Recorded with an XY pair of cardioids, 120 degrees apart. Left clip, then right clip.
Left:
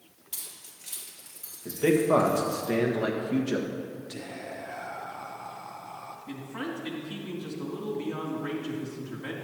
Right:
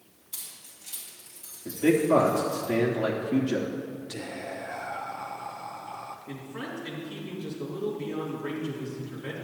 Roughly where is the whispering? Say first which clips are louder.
Right 3 dB; ahead.